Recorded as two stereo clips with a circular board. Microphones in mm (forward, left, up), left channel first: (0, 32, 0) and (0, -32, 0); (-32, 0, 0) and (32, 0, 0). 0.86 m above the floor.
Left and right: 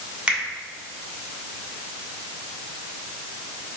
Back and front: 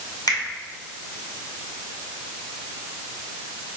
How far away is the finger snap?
About 2.0 m.